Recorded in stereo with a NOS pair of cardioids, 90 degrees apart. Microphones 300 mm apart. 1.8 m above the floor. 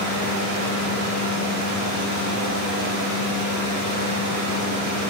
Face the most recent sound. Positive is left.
turn(degrees=-70)